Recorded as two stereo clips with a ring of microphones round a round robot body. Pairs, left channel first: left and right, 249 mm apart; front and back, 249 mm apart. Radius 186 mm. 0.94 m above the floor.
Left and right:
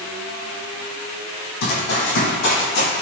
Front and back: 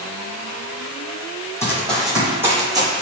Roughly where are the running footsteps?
Left.